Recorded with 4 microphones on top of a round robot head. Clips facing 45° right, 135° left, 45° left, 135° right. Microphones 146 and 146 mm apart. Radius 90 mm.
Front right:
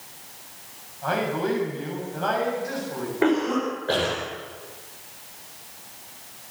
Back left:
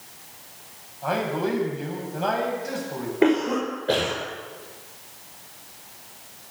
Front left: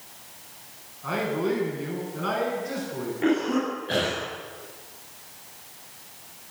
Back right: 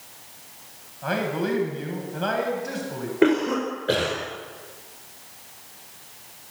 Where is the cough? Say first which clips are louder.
Back left 1 dB, back right 4 dB; 150° right, 5.5 m.